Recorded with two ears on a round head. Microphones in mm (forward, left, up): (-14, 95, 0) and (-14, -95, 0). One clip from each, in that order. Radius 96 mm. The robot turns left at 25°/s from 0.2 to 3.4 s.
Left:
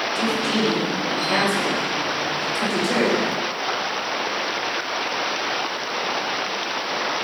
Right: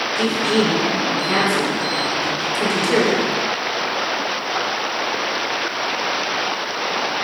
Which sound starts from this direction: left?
A woman speaking, at 0.1 s.